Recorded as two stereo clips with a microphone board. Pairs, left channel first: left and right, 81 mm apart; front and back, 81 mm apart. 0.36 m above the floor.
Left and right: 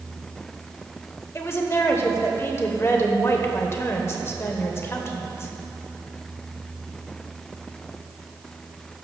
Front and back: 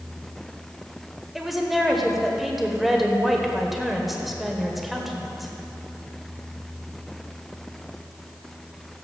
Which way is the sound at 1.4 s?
95° left.